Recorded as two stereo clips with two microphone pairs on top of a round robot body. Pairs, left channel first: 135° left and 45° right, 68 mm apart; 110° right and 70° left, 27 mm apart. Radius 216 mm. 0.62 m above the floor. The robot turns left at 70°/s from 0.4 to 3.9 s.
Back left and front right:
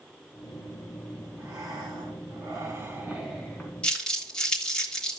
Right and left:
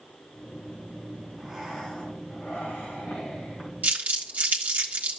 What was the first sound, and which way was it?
Breathing, 5° left.